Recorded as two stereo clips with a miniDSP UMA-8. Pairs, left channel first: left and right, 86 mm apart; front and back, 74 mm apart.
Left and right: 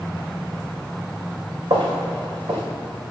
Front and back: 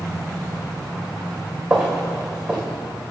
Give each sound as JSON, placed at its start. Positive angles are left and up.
{"t": 1.7, "sound": "footsteps", "azimuth_deg": -95, "distance_m": 2.5}